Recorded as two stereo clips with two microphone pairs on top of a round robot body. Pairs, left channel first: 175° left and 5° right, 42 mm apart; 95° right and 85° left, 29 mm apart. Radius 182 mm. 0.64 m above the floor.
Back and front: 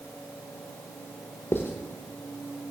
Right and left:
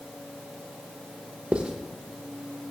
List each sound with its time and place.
1.5 s writing: 135° left, 0.7 m